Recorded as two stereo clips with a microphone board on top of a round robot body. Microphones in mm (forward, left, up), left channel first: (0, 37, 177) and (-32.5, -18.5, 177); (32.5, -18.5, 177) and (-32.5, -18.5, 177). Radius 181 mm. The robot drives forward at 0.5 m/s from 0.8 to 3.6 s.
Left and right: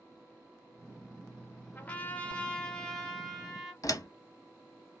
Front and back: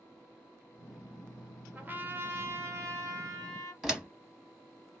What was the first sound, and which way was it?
A trumpet, 120° left.